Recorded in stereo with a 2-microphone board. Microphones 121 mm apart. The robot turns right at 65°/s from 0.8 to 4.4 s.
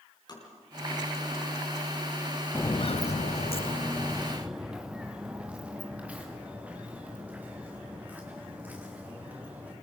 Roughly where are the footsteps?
Centre.